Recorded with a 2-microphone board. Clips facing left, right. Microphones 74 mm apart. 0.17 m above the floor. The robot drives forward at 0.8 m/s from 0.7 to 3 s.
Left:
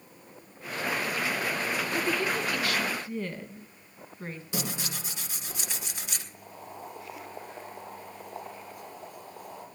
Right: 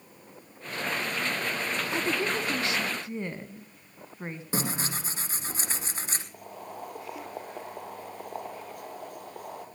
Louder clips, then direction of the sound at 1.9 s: Right 1 dB; 20° right (ahead or behind).